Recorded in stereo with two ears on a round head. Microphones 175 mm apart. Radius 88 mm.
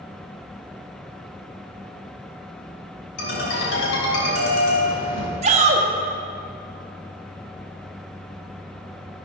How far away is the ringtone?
About 3 m.